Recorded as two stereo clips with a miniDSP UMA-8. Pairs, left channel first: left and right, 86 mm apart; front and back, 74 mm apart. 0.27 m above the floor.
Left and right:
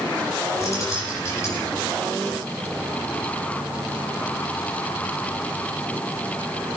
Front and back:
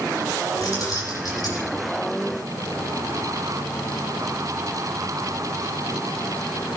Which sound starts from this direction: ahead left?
Keys jangling, at 0.6 s.